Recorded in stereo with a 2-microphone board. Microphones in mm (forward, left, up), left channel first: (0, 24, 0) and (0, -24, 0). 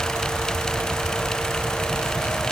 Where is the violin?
I don't hear a violin.